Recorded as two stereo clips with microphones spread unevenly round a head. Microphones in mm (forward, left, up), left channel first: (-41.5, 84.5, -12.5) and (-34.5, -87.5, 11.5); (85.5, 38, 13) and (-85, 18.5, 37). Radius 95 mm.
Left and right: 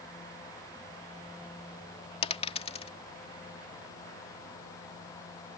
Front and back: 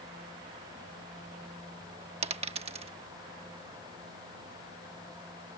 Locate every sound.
2.2 s a dropped coin: 145° left